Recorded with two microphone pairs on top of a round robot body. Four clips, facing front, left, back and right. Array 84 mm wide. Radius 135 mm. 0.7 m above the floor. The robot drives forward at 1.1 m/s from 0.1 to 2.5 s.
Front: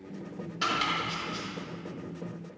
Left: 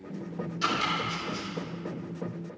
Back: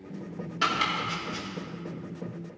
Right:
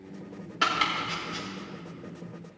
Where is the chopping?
105° right, 3.5 m; by 1.5 s 120° right, 4 m.